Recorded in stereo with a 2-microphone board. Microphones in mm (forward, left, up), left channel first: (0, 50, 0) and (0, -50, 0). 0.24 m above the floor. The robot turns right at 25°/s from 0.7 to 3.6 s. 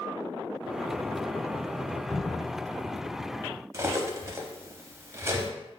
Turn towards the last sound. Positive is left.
turn(degrees=-30)  # may be behind; listen again after turning